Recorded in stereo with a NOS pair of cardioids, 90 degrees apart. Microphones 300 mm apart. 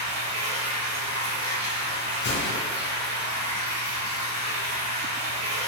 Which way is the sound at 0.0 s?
65° right.